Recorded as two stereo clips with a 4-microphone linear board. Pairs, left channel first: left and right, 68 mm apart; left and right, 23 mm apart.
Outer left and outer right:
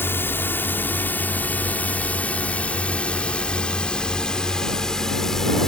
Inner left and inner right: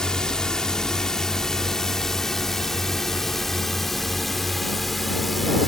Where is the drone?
30° left (ahead or behind); by 5.7 s 5° left (ahead or behind).